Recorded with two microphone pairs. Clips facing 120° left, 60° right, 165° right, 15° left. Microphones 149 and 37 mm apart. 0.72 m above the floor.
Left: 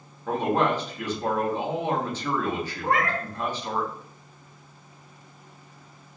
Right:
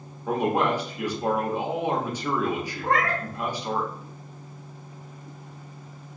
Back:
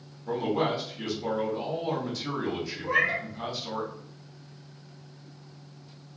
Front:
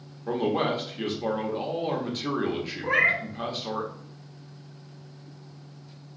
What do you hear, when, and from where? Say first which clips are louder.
0.3 s a man speaking: even, front 2 dB; 15° left, 0.9 m
2.8 s a cat meowing: right 1 dB, front 3 dB; 40° left, 0.9 m